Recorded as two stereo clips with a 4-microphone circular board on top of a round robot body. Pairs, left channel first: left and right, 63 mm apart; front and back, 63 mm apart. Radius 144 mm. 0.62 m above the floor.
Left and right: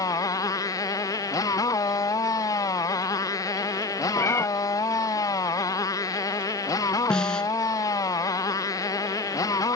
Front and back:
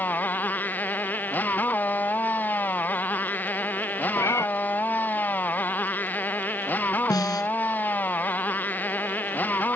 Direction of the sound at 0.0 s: 65° left.